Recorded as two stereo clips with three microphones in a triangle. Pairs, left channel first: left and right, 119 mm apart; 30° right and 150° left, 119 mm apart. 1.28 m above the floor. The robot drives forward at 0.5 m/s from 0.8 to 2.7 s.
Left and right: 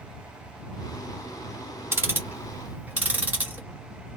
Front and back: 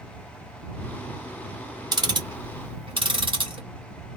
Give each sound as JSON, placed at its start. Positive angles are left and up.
{"t": 1.9, "sound": "ticking", "azimuth_deg": -155, "distance_m": 0.6}